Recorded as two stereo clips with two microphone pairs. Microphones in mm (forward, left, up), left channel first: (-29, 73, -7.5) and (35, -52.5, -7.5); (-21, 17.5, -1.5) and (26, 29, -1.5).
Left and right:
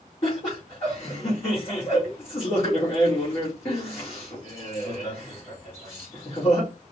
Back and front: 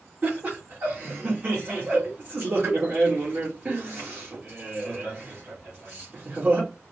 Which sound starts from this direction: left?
Laughter, at 0.2 s.